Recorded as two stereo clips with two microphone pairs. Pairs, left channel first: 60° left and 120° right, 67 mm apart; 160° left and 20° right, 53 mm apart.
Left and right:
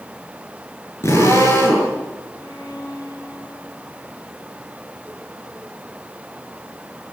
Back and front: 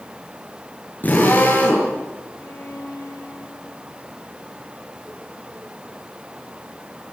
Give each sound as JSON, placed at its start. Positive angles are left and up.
{"t": 1.0, "sound": "a drill", "azimuth_deg": 110, "distance_m": 8.5}
{"t": 2.4, "sound": "a violin", "azimuth_deg": 130, "distance_m": 6.5}